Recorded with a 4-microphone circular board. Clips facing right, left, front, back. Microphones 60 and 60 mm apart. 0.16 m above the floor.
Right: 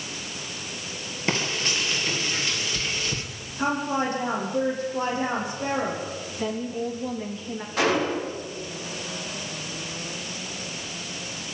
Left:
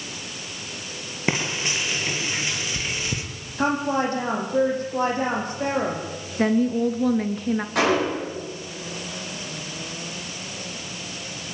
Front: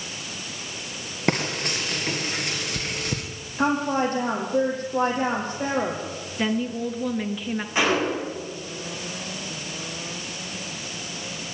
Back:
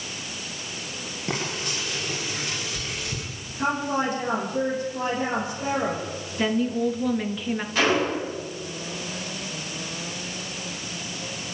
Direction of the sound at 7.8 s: 70° left.